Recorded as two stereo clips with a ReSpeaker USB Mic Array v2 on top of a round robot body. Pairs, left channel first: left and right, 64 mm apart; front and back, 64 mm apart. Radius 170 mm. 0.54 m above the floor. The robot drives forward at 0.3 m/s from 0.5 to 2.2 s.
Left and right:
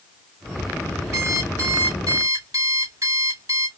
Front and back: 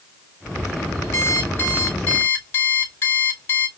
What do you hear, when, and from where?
1.1 s an alarm clock: 55° right, 2 m; by 3.7 s 60° right, 1.9 m